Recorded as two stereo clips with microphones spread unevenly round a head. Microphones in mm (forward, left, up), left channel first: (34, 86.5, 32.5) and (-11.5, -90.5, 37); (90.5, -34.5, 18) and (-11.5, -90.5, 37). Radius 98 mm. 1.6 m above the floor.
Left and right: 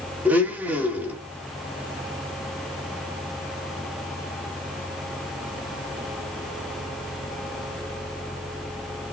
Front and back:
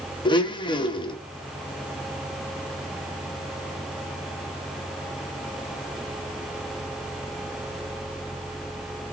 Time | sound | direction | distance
0.2 | a blender | 25° right | 1.0 m